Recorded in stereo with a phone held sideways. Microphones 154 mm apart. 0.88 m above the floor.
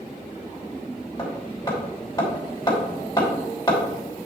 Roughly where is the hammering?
Left.